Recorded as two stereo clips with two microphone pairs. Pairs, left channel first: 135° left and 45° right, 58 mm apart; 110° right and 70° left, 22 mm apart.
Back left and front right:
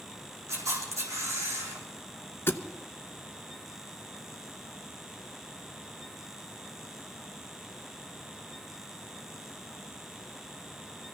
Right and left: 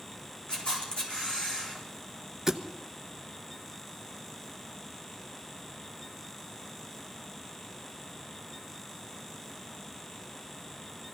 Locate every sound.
0.5 s a camera shutter: 70° right, 4 m
2.5 s a thud: 135° left, 0.9 m